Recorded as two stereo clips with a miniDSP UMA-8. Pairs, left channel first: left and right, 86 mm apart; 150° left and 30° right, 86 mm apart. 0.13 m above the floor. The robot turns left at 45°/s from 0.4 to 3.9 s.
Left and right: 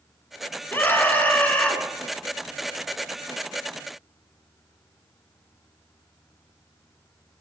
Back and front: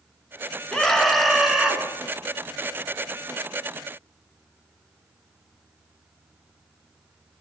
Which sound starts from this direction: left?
A scream, at 0.7 s.